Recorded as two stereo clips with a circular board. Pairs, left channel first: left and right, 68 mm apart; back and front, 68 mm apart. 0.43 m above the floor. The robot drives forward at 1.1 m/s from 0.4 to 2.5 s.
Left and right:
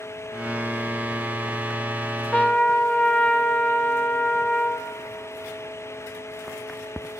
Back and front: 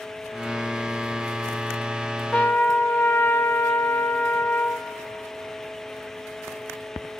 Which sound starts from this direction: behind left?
A trumpet, at 2.3 s.